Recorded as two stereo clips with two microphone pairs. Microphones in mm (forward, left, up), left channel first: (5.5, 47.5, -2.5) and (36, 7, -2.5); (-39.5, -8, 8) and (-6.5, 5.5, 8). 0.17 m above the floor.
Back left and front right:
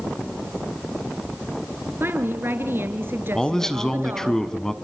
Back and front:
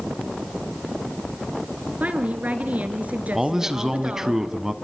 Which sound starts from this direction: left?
A man speaking, at 3.4 s.